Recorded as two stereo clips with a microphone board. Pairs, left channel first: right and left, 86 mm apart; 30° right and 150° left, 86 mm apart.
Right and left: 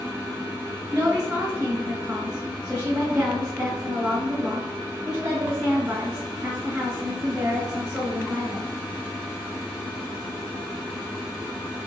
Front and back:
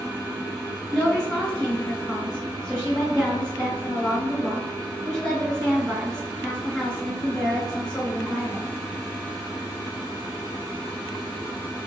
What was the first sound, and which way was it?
A woman speaking, 35° left.